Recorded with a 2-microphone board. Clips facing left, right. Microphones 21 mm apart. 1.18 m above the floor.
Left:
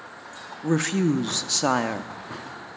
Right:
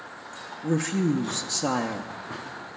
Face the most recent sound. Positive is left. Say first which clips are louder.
# left 2 dB
turn(degrees=35)  # may be behind; listen again after turning